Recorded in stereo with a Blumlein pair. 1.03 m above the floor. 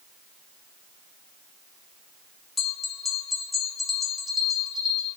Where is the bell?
15° left, 0.8 m.